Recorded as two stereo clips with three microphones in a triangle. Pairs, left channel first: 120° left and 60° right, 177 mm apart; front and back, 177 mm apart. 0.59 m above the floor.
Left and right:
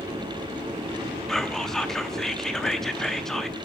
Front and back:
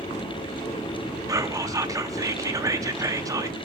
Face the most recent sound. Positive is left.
turn(degrees=-155)